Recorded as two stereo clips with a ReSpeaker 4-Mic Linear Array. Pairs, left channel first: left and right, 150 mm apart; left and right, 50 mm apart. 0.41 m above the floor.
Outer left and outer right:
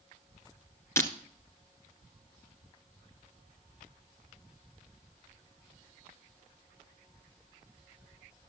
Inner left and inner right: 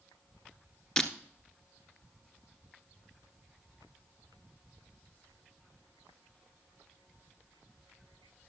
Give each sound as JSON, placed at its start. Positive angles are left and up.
{"t": 1.0, "sound": "breaking glass", "side_deg": 20, "distance_m": 1.1}